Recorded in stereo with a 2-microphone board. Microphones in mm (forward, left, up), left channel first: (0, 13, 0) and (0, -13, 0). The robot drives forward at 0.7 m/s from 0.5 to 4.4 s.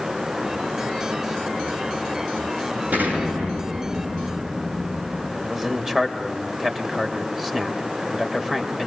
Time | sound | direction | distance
2.9 | an explosion | 75° right (ahead or behind) | 9 m
5.4 | a man speaking | 15° right (ahead or behind) | 3 m